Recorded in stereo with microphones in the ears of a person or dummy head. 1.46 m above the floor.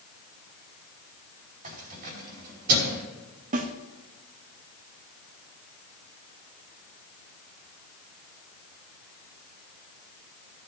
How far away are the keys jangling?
About 4.5 m.